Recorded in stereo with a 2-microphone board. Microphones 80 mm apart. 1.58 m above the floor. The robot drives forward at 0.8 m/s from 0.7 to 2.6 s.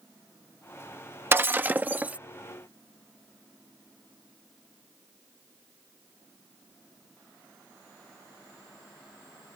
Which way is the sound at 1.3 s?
30° right (ahead or behind).